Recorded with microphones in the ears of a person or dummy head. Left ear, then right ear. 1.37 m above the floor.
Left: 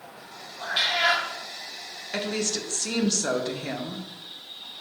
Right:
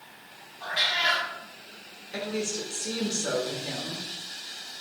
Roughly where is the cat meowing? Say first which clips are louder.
Left 2 dB; left.